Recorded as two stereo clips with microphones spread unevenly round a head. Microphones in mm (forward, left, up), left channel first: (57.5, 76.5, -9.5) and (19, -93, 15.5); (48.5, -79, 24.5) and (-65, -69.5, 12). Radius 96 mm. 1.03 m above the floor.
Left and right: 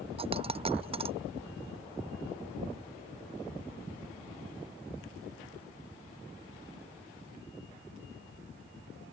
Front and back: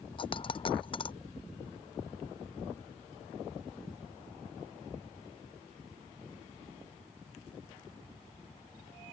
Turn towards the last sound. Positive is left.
turn(degrees=-45)